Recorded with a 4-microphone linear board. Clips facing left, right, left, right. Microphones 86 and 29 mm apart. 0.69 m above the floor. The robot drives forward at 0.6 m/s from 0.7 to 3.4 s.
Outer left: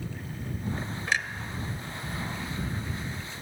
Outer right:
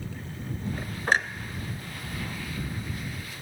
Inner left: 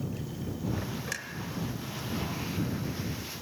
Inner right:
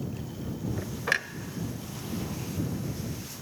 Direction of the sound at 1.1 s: 40° right (ahead or behind).